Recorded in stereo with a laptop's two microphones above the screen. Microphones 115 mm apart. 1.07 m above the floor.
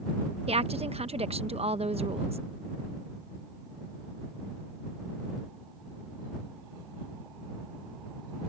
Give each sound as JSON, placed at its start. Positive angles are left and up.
{"t": 0.5, "sound": "a woman speaking", "side_deg": -65}